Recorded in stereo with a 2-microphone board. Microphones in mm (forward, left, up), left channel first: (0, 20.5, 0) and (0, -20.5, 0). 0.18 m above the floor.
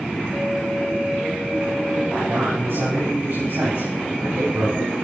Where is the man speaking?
70° right (ahead or behind), 9 m; by 4.9 s 80° right, 11.5 m.